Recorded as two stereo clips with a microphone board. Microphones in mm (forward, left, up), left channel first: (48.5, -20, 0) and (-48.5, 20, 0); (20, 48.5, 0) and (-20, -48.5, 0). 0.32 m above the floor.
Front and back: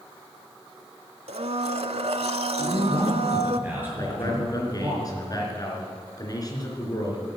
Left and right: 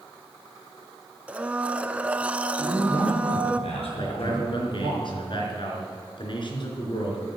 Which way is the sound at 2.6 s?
85° left.